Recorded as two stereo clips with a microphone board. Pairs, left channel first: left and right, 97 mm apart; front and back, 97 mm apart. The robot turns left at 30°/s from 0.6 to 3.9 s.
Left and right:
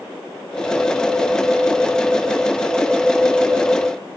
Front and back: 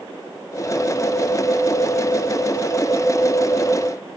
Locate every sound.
Only background noise.